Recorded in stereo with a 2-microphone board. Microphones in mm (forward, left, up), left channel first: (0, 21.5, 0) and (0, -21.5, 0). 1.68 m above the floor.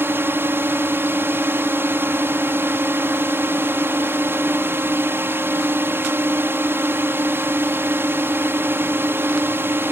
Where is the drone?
55° right (ahead or behind).